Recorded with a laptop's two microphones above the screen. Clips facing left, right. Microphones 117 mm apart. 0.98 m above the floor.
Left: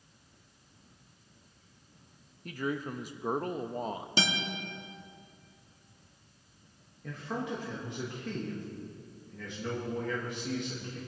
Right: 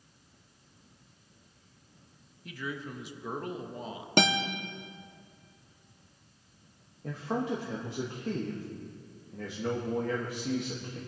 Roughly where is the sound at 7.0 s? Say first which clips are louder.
Right 4 dB; right.